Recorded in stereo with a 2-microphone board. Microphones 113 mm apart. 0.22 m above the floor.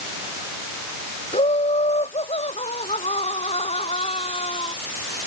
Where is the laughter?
70° left (ahead or behind).